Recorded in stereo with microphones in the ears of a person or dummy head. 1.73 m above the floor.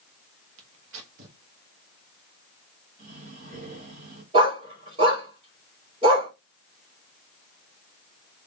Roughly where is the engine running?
No engine running in this recording.